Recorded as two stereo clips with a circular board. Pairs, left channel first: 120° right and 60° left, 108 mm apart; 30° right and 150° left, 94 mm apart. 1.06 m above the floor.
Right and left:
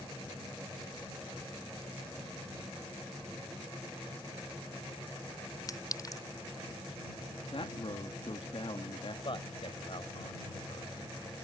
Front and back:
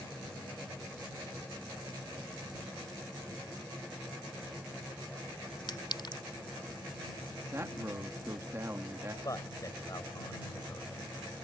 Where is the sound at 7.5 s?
150° right.